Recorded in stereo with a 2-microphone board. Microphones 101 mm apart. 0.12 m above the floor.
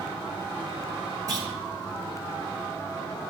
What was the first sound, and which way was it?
A clunk, 35° right (ahead or behind).